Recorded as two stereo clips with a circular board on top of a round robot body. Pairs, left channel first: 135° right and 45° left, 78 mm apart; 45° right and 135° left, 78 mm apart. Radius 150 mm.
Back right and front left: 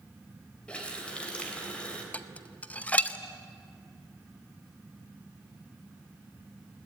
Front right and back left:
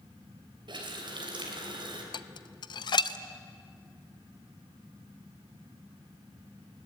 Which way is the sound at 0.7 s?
150° left.